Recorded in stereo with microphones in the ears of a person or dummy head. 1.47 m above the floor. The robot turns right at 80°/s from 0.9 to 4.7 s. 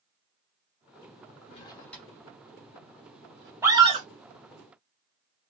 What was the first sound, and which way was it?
A drawer, 40° left (ahead or behind).